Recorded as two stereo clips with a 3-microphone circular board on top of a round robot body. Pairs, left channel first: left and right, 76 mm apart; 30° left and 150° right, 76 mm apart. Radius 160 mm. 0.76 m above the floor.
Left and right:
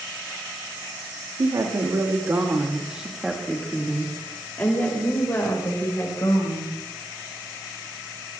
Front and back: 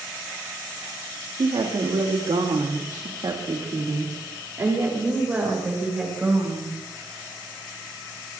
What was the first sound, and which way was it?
A woman speaking, 130° right.